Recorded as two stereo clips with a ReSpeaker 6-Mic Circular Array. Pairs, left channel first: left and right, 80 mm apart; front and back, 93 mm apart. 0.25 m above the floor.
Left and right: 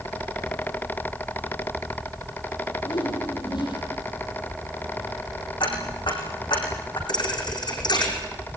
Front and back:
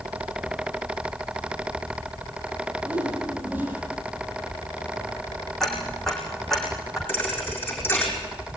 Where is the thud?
70° left, 7 m.